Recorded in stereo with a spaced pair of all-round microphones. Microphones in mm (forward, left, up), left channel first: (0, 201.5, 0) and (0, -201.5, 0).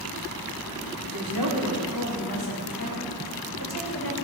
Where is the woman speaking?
75° right (ahead or behind), 2.5 m; by 4.1 s 60° right (ahead or behind), 4.5 m.